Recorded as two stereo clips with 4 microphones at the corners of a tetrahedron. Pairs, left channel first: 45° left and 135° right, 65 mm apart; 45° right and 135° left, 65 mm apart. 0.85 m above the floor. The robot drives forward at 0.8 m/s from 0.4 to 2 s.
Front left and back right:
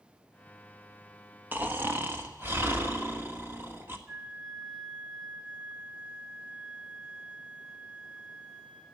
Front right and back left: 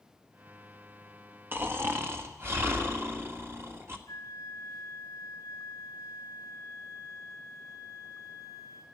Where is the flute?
70° right, 3.5 m.